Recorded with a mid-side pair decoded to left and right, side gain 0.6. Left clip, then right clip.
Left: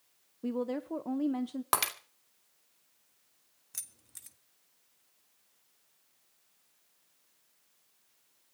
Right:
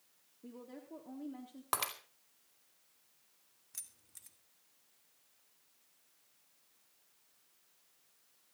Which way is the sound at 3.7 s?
30° left.